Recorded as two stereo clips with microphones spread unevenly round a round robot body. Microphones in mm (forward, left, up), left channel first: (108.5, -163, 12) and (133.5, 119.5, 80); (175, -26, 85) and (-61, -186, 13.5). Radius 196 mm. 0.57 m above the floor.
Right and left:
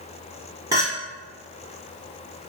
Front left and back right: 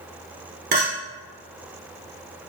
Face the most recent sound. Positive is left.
turn(degrees=170)